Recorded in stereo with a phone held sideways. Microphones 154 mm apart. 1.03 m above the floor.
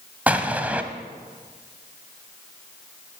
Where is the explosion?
10° right (ahead or behind), 1.2 m.